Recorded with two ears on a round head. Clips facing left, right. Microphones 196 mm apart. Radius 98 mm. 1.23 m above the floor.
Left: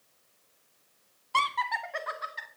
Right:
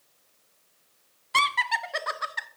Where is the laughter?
20° right (ahead or behind), 0.8 m; by 2.5 s 65° right (ahead or behind), 1.1 m.